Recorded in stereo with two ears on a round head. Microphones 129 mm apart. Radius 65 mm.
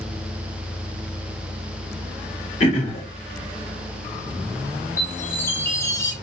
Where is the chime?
15° left (ahead or behind), 0.8 m.